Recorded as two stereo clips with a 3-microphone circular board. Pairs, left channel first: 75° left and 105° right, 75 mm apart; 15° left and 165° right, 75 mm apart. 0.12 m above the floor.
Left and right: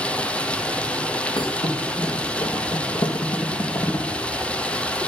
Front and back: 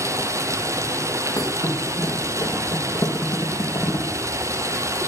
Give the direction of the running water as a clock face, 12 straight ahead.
7 o'clock.